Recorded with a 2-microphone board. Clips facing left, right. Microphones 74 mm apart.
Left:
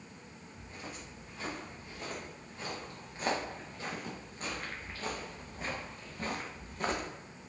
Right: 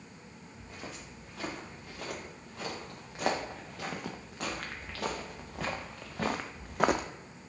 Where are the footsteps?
85° right, 4 m; by 7.1 s 65° right (ahead or behind), 0.6 m.